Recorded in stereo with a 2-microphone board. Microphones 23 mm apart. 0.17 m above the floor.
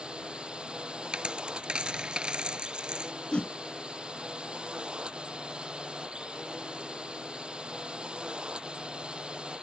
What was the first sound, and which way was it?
A drone, 45° right (ahead or behind).